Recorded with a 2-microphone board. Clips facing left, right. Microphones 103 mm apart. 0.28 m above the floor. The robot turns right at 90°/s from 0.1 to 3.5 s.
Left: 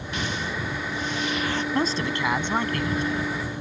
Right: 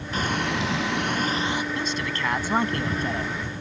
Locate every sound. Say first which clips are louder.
0.1 s frying: right 4 dB; 145° right; by 1.6 s 10° right
1.7 s a man speaking: left 4 dB; 120° left; by 3.4 s 90° right